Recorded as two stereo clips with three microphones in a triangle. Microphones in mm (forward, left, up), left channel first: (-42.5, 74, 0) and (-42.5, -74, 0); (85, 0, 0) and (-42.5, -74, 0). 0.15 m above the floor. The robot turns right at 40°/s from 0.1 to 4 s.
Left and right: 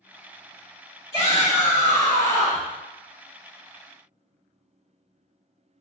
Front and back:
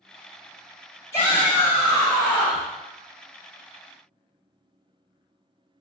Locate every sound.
1.1 s a shout: 75° left, 1.4 m; by 2.7 s 135° left, 1.4 m